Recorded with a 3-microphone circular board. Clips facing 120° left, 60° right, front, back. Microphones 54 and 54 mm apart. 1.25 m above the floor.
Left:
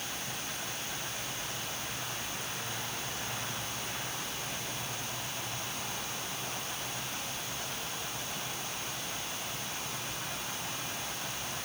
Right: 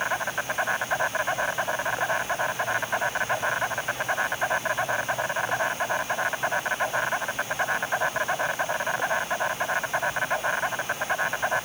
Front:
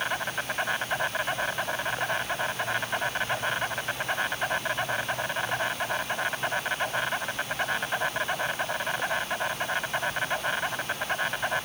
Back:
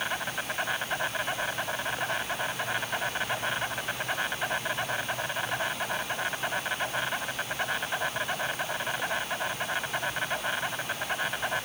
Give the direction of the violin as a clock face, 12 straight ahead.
I don't hear a violin.